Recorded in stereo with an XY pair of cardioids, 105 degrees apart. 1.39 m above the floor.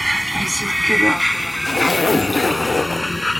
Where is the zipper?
30° left.